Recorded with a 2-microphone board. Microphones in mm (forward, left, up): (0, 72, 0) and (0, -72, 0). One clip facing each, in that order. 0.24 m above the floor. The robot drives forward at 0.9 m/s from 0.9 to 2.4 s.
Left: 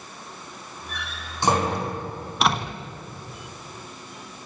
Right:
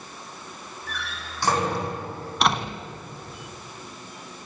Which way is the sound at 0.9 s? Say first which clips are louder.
Right 1 dB; 20° left (ahead or behind).